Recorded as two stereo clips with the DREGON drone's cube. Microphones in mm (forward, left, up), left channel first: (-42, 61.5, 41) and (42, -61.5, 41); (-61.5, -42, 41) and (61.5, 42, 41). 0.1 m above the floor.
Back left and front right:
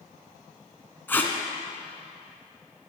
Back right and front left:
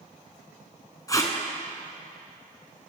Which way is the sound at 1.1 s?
175° right.